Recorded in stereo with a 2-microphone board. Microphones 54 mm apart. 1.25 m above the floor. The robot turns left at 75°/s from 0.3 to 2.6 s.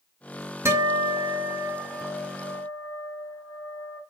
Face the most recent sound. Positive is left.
turn(degrees=100)